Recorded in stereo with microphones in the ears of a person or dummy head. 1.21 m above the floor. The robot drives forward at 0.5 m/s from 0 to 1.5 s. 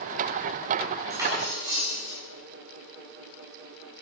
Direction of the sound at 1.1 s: 30° right (ahead or behind).